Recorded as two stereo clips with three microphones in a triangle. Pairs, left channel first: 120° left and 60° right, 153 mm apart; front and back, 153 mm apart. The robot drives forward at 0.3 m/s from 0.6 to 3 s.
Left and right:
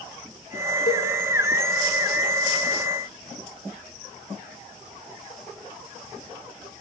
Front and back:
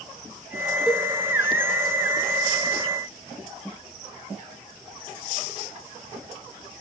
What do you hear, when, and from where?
0.9 s a cowbell: 95° left, 6.5 m